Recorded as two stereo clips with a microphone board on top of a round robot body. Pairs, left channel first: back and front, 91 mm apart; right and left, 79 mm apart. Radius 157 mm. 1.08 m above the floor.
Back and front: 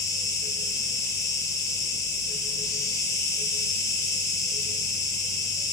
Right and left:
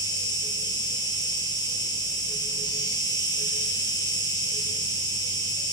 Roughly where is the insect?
Behind right.